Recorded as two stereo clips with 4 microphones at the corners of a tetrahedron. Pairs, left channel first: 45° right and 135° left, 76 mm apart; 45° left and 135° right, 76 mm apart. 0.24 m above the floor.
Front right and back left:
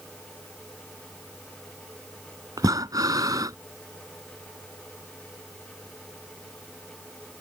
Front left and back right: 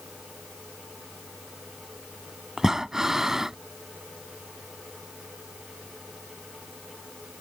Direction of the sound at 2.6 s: 145° left.